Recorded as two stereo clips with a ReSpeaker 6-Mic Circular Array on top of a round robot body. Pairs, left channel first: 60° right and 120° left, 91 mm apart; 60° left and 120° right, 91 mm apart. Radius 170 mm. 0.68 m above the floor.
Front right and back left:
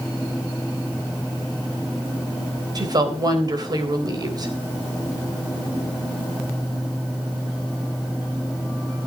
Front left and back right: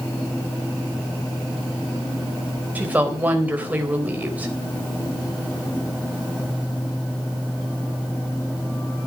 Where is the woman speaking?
165° left, 3.5 m.